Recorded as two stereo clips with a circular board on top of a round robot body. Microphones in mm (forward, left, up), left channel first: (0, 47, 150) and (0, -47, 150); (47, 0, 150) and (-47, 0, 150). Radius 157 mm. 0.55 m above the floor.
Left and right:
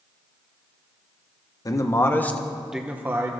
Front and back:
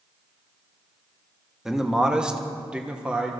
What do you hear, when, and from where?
1.6 s a man speaking: 100° left, 1.4 m; by 3.3 s 110° right, 1.3 m